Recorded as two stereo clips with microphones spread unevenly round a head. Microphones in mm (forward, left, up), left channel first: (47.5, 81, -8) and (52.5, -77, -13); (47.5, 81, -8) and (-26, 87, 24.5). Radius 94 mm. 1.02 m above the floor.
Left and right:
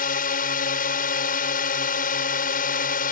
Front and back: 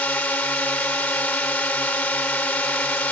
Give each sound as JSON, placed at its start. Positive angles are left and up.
{"t": 0.0, "sound": "a drone", "azimuth_deg": 65}